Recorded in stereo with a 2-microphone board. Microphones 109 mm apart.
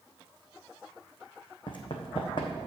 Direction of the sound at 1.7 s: 50° left (ahead or behind).